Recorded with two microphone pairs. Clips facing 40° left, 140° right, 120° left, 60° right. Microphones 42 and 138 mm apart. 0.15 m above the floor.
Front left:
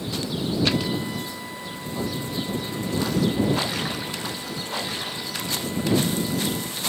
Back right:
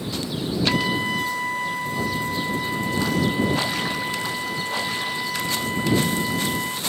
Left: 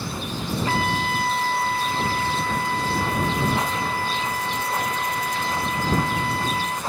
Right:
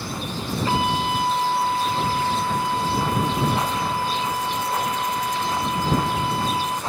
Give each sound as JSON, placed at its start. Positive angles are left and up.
{"t": 0.7, "sound": "a trumpet", "azimuth_deg": -135}